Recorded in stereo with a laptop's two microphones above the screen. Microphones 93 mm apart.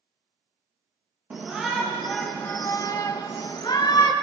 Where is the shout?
15° right (ahead or behind), 1.0 m; by 4.1 s 50° left (ahead or behind), 1.3 m.